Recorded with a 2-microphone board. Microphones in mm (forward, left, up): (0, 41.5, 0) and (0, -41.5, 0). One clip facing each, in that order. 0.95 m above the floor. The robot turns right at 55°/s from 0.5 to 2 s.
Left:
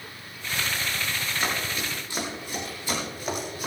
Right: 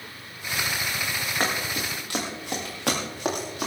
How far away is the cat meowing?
I don't hear a cat meowing.